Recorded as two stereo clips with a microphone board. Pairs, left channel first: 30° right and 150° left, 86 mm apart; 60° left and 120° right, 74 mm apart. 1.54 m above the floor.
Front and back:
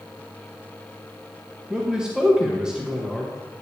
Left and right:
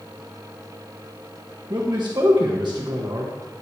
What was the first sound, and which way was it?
A man speaking, 130° right.